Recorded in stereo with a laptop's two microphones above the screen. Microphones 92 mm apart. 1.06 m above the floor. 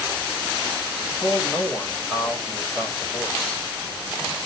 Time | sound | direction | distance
1.0 | a man speaking | 15° left (ahead or behind) | 3 m